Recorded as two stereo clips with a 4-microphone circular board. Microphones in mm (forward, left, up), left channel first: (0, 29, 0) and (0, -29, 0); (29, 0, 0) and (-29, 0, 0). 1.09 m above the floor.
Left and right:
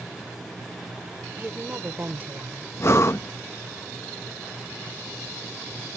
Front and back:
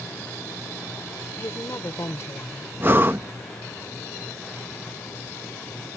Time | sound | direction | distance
1.4 | a woman speaking | 35° right | ?
2.8 | breathing | 130° left | ?